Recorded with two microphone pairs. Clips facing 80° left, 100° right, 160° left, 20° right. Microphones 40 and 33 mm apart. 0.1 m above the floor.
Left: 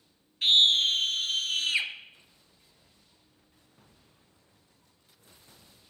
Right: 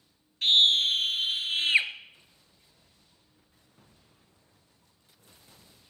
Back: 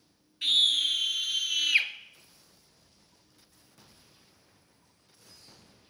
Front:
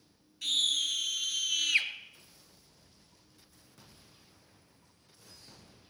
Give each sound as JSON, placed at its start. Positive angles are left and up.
{"t": 0.4, "sound": "a scream", "azimuth_deg": 165, "distance_m": 1.4}